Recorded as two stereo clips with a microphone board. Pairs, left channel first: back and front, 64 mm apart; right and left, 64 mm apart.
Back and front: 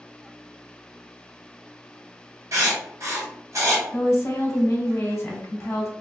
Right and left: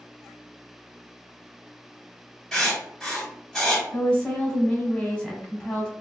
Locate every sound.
2.5 s writing: 10° right, 1.5 m
3.9 s a woman speaking: 150° right, 1.0 m